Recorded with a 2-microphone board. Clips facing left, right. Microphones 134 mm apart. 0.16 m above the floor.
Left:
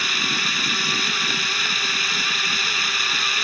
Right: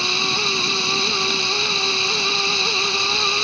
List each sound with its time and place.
0.0 s running water: 25° right (ahead or behind)